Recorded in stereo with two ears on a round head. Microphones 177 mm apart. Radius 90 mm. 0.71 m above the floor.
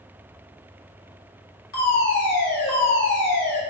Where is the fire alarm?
55° left (ahead or behind), 4 m.